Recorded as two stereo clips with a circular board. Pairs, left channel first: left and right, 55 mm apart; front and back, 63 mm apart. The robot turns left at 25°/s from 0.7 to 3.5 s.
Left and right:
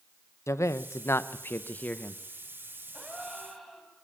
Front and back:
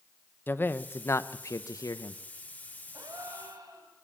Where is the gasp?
165° right, 3 m; by 3.9 s straight behind, 3 m.